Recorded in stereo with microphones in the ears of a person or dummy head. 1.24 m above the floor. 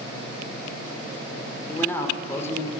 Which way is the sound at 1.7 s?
10° left (ahead or behind).